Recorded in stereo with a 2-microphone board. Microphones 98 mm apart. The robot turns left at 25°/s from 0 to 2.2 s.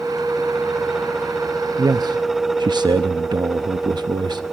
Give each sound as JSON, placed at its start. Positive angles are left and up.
{"t": 1.8, "sound": "a man speaking", "side_deg": -35, "distance_m": 0.7}